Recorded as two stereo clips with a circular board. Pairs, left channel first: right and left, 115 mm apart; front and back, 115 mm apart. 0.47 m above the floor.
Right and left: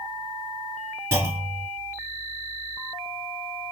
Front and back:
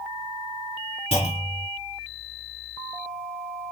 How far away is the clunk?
About 2.5 m.